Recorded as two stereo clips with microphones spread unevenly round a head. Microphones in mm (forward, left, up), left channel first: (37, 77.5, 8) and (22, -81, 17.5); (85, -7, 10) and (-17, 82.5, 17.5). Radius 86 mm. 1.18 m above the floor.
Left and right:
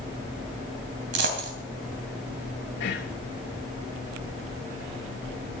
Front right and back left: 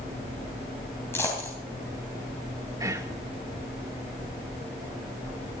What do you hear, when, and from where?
1.1 s a dropped coin: 120° right, 3 m
2.8 s whispering: 80° left, 1.5 m